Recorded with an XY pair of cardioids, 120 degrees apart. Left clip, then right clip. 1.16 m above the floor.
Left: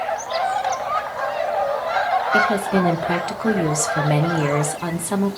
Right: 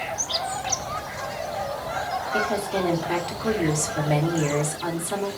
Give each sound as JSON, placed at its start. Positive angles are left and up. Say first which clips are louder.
{"t": 2.3, "sound": "a woman speaking", "louder": "left 4 dB", "azimuth_deg": 50, "distance_m": 1.1}